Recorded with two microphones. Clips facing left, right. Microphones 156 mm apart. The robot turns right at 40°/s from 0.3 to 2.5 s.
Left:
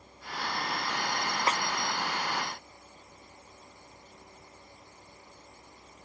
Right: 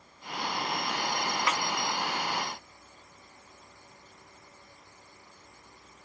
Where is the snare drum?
35° left (ahead or behind), 0.6 m; by 1.6 s 30° left (ahead or behind), 0.6 m.